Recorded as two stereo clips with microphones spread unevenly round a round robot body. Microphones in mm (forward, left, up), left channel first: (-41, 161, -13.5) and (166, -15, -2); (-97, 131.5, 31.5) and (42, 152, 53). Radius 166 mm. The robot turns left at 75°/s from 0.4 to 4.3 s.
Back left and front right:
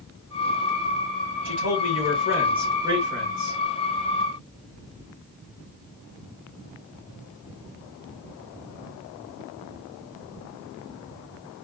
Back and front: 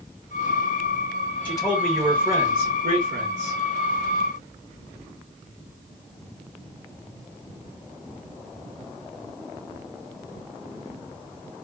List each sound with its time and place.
1.4 s a man speaking: 140° left, 1.9 m; by 3.6 s 20° right, 1.9 m